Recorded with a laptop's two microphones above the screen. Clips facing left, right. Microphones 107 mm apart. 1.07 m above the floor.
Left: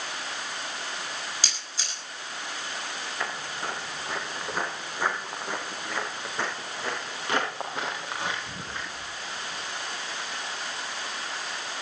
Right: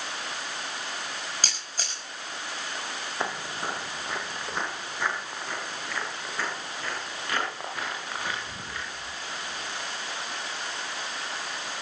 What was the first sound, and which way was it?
A camera shutter, 50° right (ahead or behind).